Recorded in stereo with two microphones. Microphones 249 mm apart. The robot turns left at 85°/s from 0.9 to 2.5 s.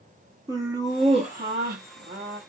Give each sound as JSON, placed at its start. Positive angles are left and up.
{"t": 0.5, "sound": "laughter", "azimuth_deg": -20, "distance_m": 0.7}